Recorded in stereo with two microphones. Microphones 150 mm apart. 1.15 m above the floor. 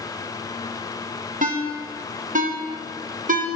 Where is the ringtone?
60° right (ahead or behind), 0.7 m.